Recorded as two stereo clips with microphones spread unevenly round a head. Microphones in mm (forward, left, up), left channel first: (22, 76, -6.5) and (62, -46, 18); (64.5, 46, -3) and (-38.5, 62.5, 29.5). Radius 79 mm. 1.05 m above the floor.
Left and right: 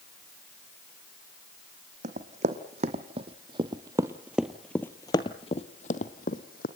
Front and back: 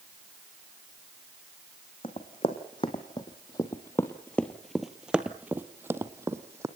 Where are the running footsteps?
75° right, 2.5 m; by 6.7 s 130° left, 1.9 m.